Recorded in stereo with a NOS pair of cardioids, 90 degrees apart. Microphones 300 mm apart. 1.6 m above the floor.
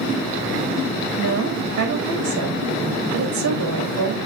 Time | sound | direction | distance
1.2 | a woman speaking | 65° right | 3.5 m